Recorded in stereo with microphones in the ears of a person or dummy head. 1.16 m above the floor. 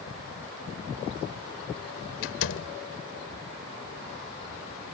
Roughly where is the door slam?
Left.